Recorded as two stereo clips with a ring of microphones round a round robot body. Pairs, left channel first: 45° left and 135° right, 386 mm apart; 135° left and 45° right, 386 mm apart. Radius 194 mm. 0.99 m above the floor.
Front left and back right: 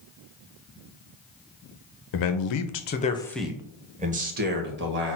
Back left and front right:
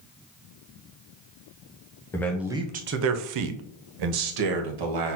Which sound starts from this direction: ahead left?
A man speaking, at 2.1 s.